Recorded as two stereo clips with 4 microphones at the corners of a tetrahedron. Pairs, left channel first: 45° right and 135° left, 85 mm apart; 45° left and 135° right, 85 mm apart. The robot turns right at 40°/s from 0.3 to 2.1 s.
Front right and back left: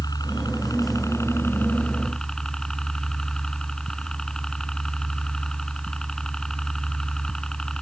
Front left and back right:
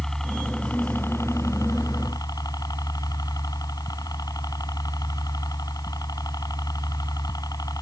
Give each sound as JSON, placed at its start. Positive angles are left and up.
{"t": 0.0, "sound": "a helicopter", "azimuth_deg": -35}